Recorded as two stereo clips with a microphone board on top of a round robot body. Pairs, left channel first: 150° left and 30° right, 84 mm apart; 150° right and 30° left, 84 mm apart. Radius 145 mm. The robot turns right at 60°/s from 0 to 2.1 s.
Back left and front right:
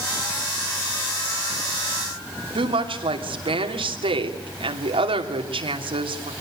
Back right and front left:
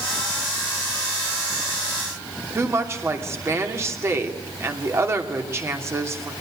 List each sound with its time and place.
2.5 s a woman speaking: 30° right, 3 m